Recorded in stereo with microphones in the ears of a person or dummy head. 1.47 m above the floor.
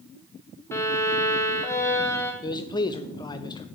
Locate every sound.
0.7 s a violin: 15° left (ahead or behind), 1.1 m
2.4 s a man speaking: 20° left (ahead or behind), 0.7 m